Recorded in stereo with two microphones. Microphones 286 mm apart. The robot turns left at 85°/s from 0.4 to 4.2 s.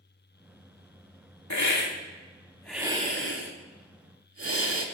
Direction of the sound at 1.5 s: 75° left (ahead or behind).